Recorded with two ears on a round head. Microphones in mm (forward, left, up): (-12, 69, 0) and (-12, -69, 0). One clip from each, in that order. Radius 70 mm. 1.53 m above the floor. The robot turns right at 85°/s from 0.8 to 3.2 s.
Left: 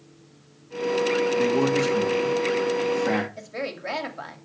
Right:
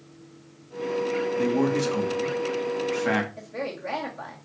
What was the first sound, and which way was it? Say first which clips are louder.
A man speaking: left 3 dB; 155° left.